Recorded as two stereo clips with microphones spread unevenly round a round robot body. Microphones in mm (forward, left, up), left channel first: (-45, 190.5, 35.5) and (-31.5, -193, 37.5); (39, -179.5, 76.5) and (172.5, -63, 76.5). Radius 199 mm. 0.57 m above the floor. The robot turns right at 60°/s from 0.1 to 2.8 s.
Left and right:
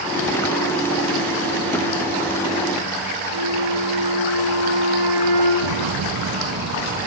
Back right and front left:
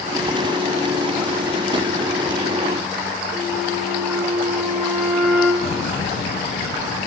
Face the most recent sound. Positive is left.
turn(degrees=-155)